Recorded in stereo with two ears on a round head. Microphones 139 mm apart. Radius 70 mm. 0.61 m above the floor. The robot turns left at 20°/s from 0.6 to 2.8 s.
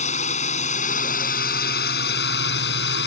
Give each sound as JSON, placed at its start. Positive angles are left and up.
{"t": 0.0, "sound": "a drone", "azimuth_deg": 130}